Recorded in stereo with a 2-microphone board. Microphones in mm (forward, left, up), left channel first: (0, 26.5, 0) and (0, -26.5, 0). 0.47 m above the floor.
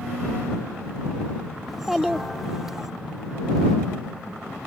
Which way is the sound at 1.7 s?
5° right (ahead or behind).